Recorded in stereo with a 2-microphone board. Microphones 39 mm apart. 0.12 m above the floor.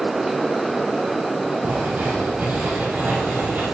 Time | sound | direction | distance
1.6 | writing | 45° right (ahead or behind) | 5 m